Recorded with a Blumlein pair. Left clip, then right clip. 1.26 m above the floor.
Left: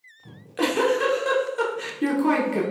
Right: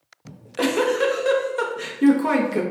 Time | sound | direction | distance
0.2 | a giggle | 10° right | 0.6 m